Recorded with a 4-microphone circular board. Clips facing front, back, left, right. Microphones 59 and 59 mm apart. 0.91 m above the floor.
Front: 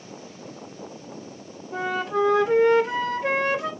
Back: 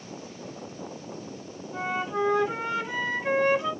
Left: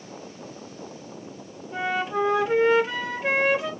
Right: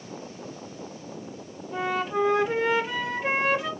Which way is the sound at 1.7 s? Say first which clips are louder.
Front 4 dB, left 1 dB; straight ahead.